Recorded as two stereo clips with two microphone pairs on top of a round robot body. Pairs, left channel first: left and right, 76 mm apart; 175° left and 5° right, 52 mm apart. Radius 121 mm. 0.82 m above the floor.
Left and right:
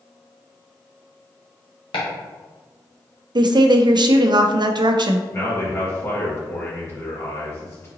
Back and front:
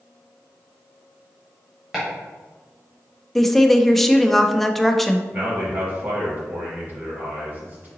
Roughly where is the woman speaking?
Right.